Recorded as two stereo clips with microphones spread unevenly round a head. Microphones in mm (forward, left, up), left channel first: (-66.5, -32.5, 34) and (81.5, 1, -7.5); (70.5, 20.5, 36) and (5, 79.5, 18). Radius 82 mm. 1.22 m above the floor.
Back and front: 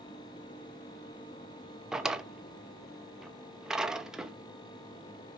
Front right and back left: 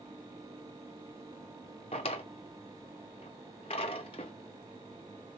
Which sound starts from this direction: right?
A drawer, at 1.9 s.